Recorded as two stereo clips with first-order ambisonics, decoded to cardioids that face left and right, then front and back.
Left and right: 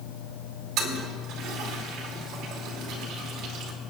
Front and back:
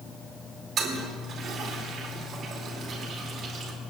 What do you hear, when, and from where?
0.8 s a toilet flushing: 120° right, 2.5 m